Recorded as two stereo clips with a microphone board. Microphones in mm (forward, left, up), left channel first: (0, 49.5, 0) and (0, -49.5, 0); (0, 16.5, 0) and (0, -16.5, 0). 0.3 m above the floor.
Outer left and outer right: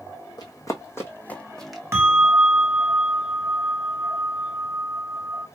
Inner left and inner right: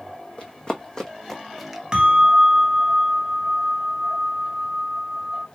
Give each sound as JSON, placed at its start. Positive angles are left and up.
{"t": 0.4, "sound": "running footsteps", "side_deg": 40, "distance_m": 1.3}
{"t": 1.9, "sound": "a bell", "side_deg": -25, "distance_m": 1.0}